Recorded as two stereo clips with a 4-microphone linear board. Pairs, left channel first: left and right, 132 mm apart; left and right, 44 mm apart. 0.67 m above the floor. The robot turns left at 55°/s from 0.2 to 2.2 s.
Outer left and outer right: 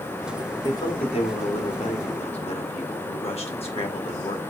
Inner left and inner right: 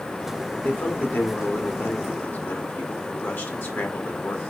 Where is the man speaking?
150° left, 1.3 m; by 4.4 s 65° left, 1.3 m.